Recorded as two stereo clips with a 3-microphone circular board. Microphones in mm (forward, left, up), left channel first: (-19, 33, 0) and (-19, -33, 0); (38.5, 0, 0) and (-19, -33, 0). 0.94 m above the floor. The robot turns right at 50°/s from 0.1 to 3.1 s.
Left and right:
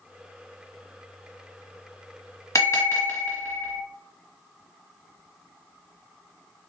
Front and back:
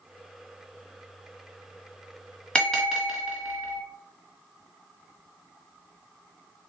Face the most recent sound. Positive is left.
turn(degrees=130)